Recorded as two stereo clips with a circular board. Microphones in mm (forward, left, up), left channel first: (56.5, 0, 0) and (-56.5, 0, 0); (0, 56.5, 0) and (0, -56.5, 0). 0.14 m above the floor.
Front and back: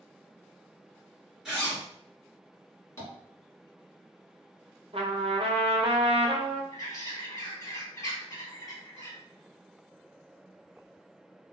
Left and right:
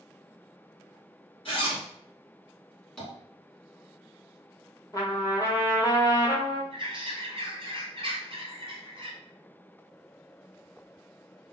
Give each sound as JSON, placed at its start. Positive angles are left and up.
{"t": 1.4, "sound": "a zipper", "azimuth_deg": 95, "distance_m": 1.7}
{"t": 3.0, "sound": "tapping", "azimuth_deg": 10, "distance_m": 1.8}
{"t": 4.9, "sound": "a trumpet", "azimuth_deg": 150, "distance_m": 1.1}
{"t": 6.7, "sound": "a bird", "azimuth_deg": -55, "distance_m": 1.5}